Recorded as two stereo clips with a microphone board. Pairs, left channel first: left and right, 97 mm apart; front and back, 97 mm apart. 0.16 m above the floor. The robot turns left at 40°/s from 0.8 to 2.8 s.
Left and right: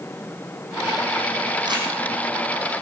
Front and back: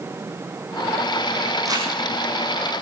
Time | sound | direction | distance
1.6 | crumpling | 125° right | 4 m